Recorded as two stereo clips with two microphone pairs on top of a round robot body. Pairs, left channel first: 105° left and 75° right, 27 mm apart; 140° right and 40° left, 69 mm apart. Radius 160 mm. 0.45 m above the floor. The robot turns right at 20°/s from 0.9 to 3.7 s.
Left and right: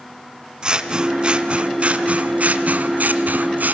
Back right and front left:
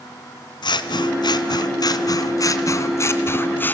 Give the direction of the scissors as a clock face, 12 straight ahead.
4 o'clock.